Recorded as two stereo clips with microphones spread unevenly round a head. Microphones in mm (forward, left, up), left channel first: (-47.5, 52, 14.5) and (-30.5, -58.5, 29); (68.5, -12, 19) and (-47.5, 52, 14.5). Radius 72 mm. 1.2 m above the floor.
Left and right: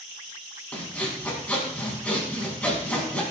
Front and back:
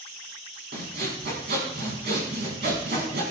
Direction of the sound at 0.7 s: 175° left.